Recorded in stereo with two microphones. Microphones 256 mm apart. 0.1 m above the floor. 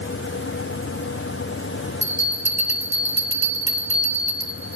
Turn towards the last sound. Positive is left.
turn(degrees=30)  # may be behind; listen again after turning